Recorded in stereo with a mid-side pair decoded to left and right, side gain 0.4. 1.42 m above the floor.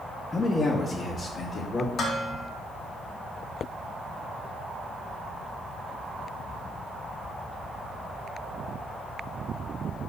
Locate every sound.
0.3 s a man speaking: 30° left, 1.1 m; by 1.9 s 50° left, 2 m
2.0 s dishes clattering: 65° left, 1.9 m